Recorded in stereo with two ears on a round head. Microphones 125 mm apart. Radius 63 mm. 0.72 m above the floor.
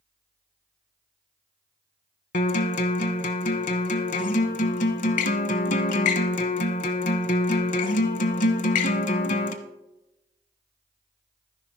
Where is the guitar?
60° left (ahead or behind), 1.0 m.